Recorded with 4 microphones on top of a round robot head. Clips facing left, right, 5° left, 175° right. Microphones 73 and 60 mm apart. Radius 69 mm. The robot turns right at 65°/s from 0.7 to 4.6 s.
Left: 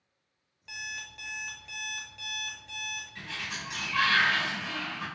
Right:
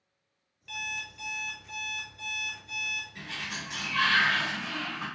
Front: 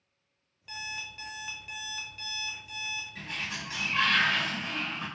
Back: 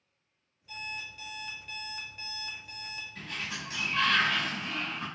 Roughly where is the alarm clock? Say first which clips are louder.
Right 2 dB, front 1 dB; ahead.